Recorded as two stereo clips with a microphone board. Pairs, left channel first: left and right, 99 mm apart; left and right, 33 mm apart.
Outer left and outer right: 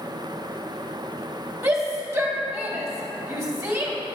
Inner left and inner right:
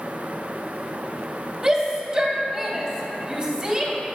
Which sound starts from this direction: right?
A shout, at 1.6 s.